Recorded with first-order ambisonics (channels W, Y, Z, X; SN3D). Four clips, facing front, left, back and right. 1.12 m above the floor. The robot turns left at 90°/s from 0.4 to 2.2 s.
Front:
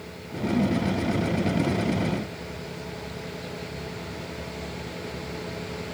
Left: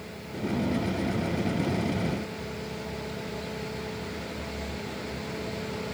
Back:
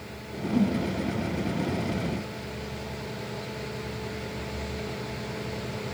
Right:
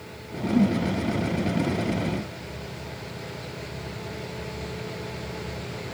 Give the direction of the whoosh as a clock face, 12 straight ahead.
3 o'clock.